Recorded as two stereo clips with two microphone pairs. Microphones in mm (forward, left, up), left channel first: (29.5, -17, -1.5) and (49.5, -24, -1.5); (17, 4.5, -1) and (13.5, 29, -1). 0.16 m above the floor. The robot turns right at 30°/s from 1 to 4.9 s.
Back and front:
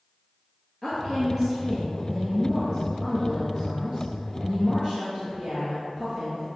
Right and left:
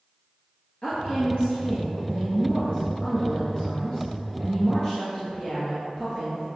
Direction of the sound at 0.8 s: 125° right.